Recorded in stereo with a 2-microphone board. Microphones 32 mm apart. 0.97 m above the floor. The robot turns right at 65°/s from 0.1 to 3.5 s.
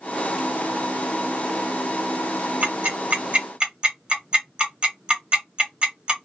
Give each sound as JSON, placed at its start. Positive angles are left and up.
{"t": 2.6, "sound": "ticking", "side_deg": -55, "distance_m": 1.3}